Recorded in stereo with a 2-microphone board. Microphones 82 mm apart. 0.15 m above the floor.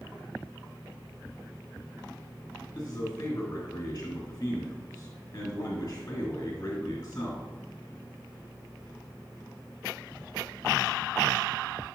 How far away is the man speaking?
About 1.9 m.